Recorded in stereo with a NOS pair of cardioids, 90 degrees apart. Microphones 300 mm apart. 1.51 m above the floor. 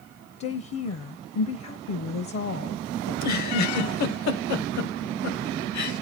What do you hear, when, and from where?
0.4 s a woman speaking: 50° left, 0.8 m
3.1 s a giggle: 65° left, 1.2 m